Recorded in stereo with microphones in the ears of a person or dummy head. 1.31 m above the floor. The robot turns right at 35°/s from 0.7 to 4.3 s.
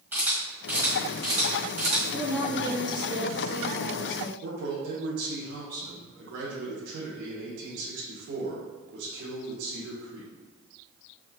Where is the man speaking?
55° right (ahead or behind), 1.0 m.